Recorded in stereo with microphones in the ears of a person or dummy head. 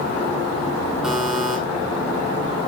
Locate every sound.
1.0 s a buzzer: 5° right (ahead or behind), 2 m